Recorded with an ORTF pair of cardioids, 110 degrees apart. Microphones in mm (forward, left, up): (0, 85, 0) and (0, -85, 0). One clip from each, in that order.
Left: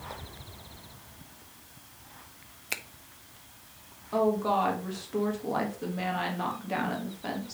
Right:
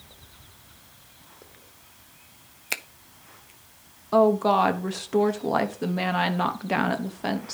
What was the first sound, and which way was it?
A finger snap, 20° right.